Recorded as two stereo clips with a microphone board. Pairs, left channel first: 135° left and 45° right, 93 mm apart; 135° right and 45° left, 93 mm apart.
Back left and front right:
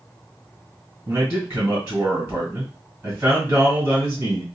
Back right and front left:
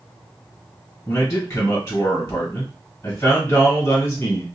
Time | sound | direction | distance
1.1 | a man speaking | 105° right | 1.8 m